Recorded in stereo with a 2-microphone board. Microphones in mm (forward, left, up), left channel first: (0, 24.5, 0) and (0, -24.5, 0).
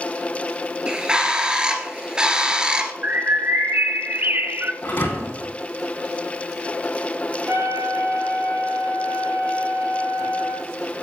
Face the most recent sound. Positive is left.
turn(degrees=-65)  # may be behind; listen again after turning